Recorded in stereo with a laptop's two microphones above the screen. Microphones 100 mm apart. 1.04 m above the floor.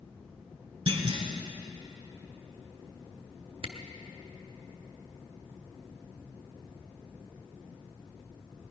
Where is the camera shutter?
60° right (ahead or behind), 1.1 m.